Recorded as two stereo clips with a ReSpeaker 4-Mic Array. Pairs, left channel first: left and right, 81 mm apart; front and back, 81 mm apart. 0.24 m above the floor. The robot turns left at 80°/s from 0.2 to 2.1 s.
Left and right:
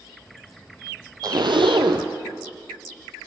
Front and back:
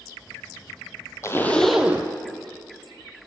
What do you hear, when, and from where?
1.2 s a zipper: 50° right, 1.1 m; by 2.1 s 120° right, 1.1 m